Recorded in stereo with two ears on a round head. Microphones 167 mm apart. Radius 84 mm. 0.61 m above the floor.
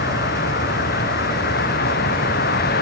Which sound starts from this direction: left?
A vehicle, at 0.0 s.